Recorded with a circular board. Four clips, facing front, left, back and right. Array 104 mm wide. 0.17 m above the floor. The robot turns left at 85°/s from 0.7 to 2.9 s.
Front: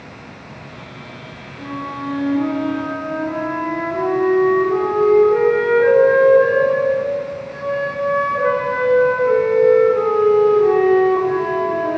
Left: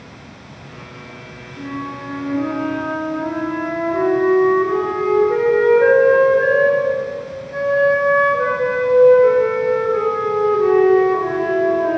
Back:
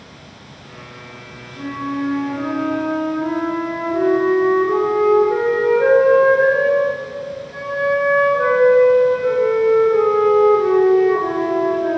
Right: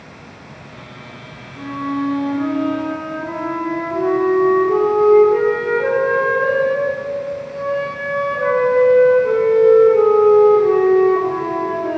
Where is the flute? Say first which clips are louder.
Right 6 dB, back 4 dB; 130° right, 2 m; by 12.0 s 115° left, 2 m.